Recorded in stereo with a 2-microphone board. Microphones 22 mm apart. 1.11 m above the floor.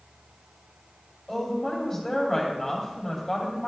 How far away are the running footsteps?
I don't hear running footsteps.